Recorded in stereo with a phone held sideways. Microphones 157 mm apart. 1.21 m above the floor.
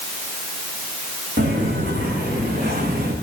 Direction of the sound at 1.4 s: 75° right (ahead or behind).